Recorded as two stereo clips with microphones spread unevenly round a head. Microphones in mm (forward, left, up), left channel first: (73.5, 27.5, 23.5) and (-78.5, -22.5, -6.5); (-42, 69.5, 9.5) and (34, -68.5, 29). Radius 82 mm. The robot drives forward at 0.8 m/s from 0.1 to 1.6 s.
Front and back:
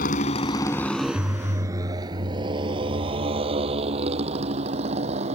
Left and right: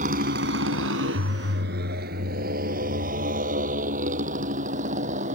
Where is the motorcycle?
20° right; by 5.3 s 110° right.